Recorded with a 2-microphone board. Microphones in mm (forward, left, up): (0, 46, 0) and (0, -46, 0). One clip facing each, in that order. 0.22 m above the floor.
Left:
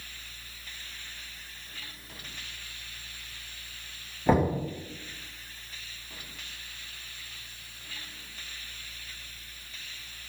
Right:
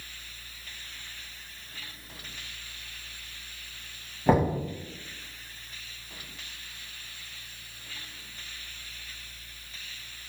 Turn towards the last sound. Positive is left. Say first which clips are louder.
# right 1 dB
turn(degrees=-10)  # may be behind; listen again after turning